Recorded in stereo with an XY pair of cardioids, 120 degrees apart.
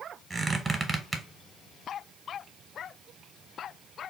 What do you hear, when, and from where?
0.3 s a squeak: 20° right, 0.7 m